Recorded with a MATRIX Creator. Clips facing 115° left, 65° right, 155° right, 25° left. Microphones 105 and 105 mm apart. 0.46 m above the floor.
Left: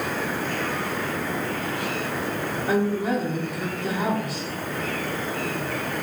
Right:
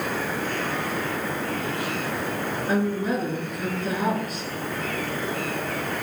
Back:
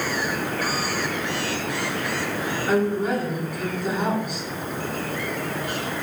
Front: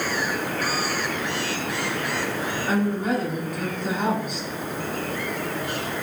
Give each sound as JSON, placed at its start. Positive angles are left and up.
{"t": 2.7, "sound": "a woman speaking", "azimuth_deg": 115, "distance_m": 5.0}